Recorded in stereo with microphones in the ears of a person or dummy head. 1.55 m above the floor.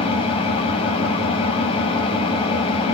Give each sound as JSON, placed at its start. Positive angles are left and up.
{"t": 0.0, "sound": "an engine running", "side_deg": 25, "distance_m": 5.5}